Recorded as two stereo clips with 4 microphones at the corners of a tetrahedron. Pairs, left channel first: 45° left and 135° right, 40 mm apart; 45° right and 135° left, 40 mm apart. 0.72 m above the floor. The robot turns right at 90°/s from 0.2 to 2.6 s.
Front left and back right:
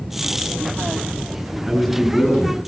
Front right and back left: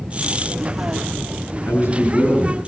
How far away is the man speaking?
About 9 m.